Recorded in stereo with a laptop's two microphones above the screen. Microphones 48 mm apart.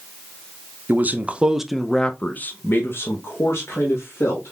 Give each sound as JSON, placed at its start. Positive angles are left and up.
{"t": 0.9, "sound": "a man speaking", "side_deg": -45, "distance_m": 0.7}